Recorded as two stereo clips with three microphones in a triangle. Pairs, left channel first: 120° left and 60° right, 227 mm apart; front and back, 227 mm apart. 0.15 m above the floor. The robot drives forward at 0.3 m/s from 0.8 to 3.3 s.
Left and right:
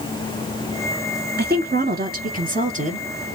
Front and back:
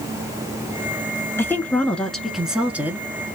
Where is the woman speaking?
75° right, 1.5 m; by 3.0 s 100° right, 1.5 m.